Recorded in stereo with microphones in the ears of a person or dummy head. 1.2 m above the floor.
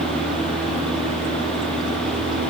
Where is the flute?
I don't hear a flute.